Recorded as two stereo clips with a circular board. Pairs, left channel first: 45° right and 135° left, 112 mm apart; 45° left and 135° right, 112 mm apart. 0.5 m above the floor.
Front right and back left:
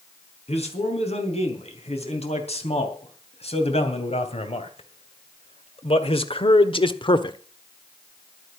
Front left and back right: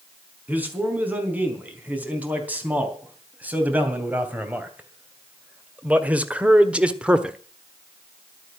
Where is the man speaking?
60° right, 4.5 m; by 7.4 s 55° right, 1.1 m.